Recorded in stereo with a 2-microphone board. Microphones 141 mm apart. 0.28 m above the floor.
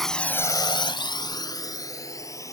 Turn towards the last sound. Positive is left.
turn(degrees=20)  # may be behind; listen again after turning